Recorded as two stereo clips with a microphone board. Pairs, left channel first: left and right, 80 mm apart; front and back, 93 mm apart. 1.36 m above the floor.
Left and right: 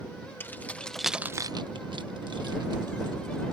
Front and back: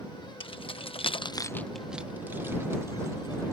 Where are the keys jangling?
25° left; by 3.5 s 125° right.